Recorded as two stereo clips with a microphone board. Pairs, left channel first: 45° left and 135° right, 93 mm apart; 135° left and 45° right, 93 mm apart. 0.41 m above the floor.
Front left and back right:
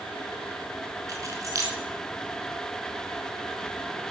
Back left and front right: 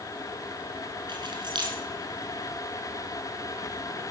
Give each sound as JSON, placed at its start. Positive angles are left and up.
{"t": 1.1, "sound": "keys jangling", "azimuth_deg": -80, "distance_m": 3.0}